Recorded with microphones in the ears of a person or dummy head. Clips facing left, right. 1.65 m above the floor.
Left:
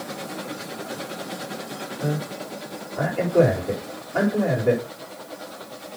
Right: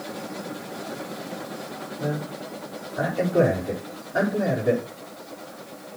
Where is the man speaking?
5° right (ahead or behind), 4.5 m.